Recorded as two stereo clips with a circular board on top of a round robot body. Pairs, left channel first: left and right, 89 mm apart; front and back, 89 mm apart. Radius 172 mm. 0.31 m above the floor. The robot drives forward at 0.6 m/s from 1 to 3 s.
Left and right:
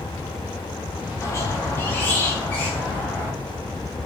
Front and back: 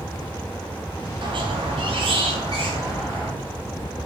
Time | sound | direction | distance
1.2 | a squeak | 145° left | 0.8 m